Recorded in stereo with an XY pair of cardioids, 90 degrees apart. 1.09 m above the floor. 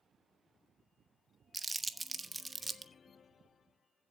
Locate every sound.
1.5 s crumpling: 20° right, 1.0 m